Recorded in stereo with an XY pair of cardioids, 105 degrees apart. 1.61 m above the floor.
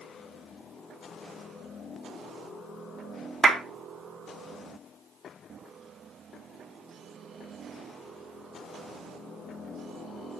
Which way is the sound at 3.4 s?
35° right.